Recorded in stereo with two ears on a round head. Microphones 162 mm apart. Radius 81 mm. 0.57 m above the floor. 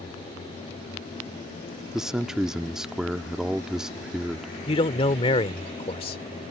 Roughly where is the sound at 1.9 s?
Centre.